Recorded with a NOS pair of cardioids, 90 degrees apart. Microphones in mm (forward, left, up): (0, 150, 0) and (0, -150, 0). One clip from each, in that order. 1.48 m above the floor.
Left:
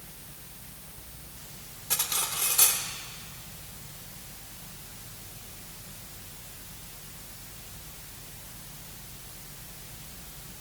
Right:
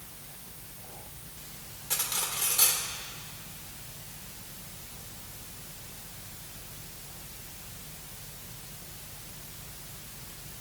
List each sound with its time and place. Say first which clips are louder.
1.9 s cutlery clinking: left 2 dB; 20° left, 2.5 m